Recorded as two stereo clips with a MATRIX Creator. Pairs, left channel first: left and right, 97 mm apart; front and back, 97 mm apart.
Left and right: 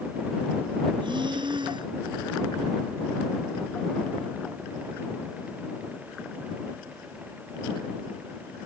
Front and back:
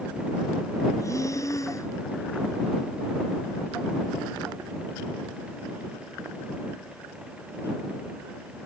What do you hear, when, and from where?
1.0 s breathing: 55° right